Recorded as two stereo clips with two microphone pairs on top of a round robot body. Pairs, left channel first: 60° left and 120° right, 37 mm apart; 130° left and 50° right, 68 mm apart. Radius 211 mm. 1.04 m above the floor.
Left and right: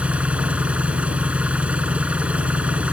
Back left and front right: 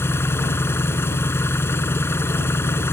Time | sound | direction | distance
0.0 | an engine running | 175° right | ?